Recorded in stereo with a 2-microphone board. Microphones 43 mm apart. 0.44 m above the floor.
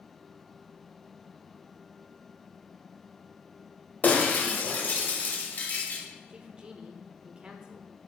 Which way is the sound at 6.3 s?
20° right (ahead or behind).